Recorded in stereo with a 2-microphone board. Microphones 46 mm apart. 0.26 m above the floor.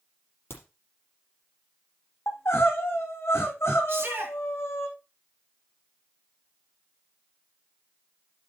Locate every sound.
0.5 s a crack: 65° left (ahead or behind), 4 m
2.3 s crying: 80° left, 2.5 m
3.9 s a shout: 60° right (ahead or behind), 3 m